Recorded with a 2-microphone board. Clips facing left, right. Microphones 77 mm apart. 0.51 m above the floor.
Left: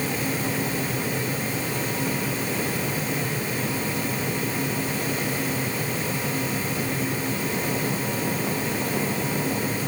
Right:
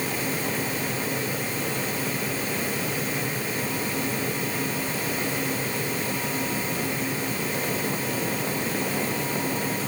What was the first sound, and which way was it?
Only background noise.